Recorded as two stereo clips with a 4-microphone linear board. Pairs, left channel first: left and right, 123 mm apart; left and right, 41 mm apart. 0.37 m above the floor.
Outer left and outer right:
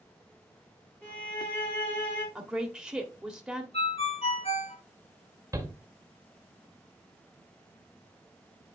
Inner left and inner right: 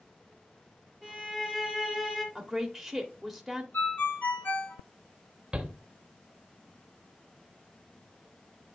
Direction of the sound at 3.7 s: 55° left (ahead or behind).